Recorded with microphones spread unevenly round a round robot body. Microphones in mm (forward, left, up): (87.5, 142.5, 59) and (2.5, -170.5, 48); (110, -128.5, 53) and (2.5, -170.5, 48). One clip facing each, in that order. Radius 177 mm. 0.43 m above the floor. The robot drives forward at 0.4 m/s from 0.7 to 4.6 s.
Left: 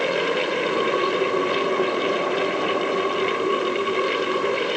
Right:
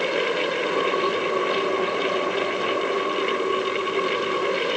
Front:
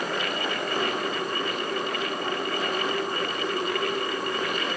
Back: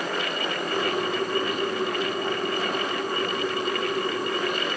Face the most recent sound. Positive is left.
No sound to turn to.